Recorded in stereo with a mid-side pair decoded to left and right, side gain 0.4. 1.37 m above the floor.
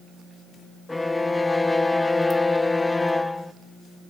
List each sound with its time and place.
0.9 s a violin: 20° left, 0.8 m